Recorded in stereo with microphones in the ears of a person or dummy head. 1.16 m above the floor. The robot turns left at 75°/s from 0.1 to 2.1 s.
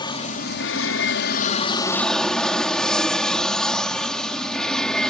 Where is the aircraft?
155° left; by 5.1 s 5° left.